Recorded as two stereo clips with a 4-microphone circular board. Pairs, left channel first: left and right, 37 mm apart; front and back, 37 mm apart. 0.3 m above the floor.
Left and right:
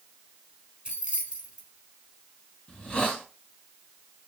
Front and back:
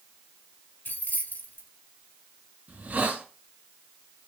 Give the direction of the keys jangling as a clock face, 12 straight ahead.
1 o'clock.